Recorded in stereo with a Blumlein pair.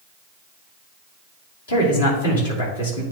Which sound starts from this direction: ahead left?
A man speaking, at 1.7 s.